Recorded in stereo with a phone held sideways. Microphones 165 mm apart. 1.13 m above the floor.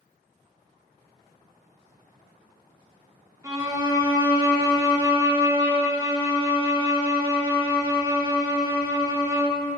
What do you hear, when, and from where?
3.4 s a violin: 20° right (ahead or behind), 0.9 m